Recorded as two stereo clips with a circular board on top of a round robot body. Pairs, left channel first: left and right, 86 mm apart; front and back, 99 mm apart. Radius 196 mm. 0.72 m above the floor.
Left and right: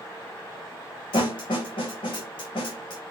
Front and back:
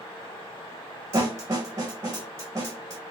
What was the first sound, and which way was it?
A snare drum, 115° left.